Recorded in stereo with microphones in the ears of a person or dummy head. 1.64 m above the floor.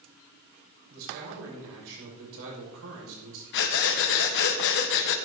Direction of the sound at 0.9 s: 80° right.